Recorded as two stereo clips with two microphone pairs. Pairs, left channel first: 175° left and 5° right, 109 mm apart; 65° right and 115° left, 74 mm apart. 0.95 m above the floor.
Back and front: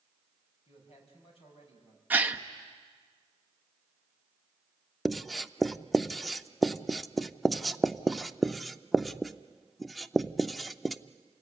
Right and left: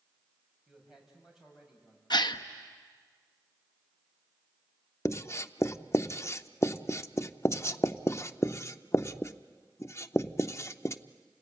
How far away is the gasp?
About 0.8 m.